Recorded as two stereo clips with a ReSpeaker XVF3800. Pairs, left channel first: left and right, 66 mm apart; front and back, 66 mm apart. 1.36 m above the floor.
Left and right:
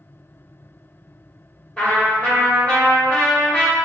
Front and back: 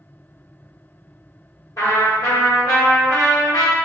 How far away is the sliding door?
No sliding door in this recording.